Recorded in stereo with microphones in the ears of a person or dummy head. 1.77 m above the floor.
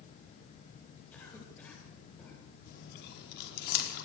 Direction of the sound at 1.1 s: 5° left (ahead or behind).